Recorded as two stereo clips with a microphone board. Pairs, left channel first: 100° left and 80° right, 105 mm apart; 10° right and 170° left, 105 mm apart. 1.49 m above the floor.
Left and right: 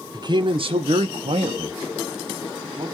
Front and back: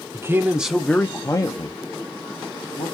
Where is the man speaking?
125° right, 0.8 m; by 2.9 s 35° right, 1.5 m.